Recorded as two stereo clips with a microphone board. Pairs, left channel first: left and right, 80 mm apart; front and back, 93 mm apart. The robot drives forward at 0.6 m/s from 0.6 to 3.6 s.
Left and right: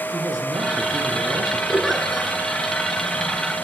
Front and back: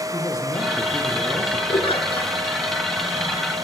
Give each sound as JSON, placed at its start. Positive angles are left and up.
{"t": 0.1, "sound": "a man speaking", "azimuth_deg": -50, "distance_m": 9.5}
{"t": 1.7, "sound": "a giggle", "azimuth_deg": 0, "distance_m": 7.0}